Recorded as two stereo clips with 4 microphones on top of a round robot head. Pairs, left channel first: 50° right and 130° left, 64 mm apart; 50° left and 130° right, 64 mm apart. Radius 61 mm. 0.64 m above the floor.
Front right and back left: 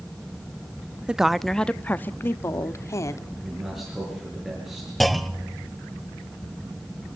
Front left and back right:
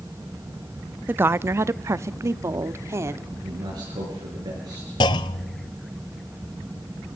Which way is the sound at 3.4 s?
140° right.